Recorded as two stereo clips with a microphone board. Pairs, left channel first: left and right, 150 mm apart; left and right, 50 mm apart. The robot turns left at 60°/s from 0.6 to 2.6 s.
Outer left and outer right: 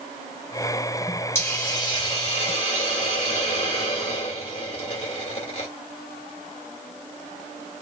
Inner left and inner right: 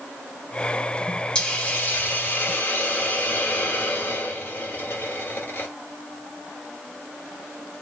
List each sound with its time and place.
1.4 s a hiss: 155° left, 1.4 m; by 5.7 s 80° left, 1.4 m